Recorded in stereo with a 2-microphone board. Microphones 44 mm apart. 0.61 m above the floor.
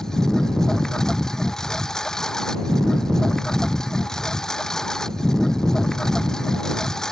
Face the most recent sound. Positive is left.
turn(degrees=15)  # may be behind; listen again after turning